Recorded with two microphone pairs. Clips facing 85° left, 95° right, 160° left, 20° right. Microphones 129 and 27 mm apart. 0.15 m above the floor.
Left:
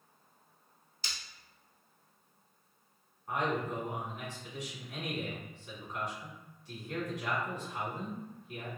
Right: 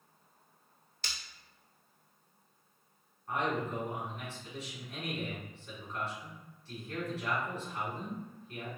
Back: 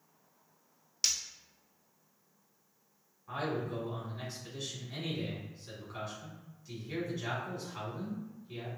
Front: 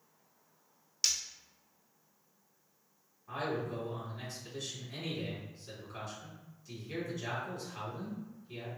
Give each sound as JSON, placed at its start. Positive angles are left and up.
{"t": 1.0, "sound": "breaking glass", "azimuth_deg": -115, "distance_m": 0.7}
{"t": 3.3, "sound": "a man speaking", "azimuth_deg": 120, "distance_m": 1.4}